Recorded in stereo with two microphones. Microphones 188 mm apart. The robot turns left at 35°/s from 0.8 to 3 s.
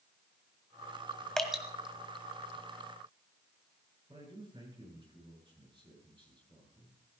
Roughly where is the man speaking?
Right.